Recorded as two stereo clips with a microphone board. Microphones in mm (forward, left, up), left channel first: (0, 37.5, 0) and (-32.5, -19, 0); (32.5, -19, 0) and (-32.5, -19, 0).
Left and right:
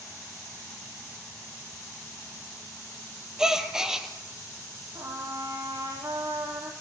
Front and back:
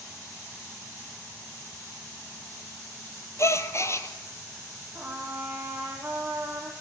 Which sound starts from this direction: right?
A trumpet, at 5.0 s.